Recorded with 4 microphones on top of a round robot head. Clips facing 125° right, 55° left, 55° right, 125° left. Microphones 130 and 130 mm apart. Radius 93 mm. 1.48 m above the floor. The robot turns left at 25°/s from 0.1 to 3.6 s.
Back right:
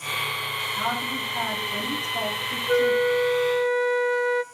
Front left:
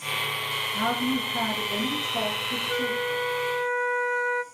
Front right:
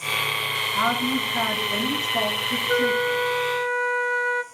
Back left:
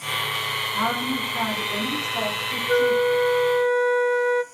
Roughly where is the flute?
Behind.